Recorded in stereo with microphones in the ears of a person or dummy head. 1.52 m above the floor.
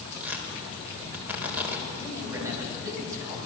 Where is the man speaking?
15° right (ahead or behind), 8 m.